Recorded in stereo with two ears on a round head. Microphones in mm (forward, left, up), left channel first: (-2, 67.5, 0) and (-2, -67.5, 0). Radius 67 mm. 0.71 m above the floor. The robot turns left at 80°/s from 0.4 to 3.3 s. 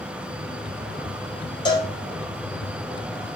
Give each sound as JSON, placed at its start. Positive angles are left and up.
{"t": 1.6, "sound": "a cowbell", "side_deg": 30, "distance_m": 2.0}